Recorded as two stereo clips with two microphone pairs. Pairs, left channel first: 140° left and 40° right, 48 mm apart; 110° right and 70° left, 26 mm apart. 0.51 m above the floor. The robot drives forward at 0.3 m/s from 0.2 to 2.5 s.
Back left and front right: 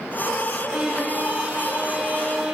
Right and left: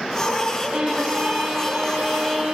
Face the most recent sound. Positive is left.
turn(degrees=30)